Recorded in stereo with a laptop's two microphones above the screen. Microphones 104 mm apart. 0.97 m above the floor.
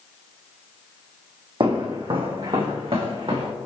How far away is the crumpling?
I don't hear crumpling.